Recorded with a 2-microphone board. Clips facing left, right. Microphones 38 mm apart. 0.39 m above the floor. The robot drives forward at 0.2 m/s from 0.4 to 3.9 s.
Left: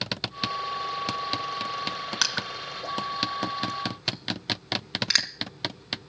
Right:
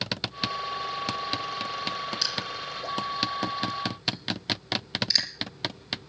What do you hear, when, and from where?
2.2 s crushing: 85° left, 1.4 m; by 5.3 s 75° left (ahead or behind), 1.4 m